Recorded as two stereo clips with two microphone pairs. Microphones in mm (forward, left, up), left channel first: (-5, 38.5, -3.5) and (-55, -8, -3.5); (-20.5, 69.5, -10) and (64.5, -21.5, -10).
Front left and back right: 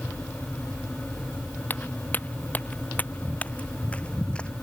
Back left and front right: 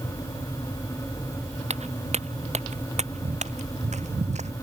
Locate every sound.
1.7 s footsteps: 20° right; by 4.5 s 30° right